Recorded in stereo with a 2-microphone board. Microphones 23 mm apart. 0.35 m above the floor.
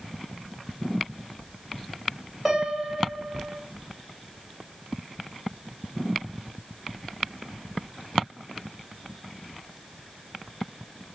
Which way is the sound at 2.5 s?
5° right (ahead or behind).